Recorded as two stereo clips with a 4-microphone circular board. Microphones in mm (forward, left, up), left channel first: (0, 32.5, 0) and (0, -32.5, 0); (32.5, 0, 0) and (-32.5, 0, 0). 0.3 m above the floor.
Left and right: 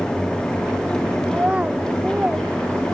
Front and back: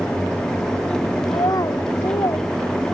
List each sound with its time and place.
1.3 s a child speaking: 20° right